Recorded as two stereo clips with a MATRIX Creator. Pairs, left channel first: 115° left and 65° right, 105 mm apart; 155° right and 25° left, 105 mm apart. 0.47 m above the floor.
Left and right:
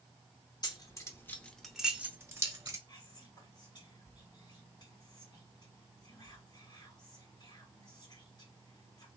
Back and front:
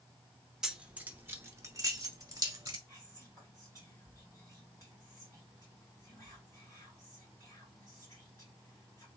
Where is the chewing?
No chewing in this recording.